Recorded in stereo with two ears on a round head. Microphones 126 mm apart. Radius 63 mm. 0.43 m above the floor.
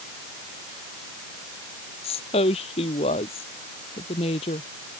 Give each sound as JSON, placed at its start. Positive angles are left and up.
{"t": 2.0, "sound": "a woman speaking", "side_deg": 45}